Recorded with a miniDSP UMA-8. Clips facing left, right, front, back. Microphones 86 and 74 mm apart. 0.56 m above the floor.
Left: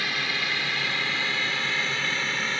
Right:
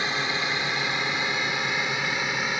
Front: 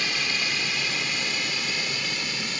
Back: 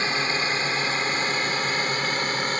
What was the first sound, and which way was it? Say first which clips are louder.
A drone: right 2 dB, back 4 dB; 145° right.